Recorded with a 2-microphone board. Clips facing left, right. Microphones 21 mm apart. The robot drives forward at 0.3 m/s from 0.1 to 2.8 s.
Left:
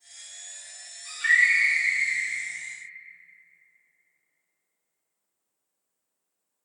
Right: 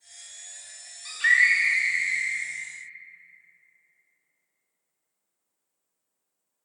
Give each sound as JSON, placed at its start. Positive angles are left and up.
{"t": 1.1, "sound": "a scream", "side_deg": -35, "distance_m": 1.2}